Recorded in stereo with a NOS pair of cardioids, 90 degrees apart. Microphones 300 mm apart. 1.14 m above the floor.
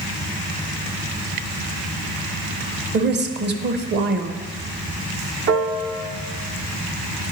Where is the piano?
55° right, 0.7 m.